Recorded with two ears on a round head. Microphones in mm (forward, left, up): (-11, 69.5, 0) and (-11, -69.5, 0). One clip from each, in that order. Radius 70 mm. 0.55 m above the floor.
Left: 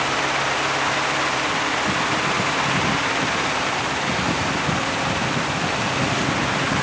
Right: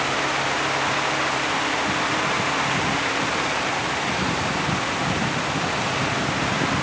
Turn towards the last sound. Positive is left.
No sound to turn to.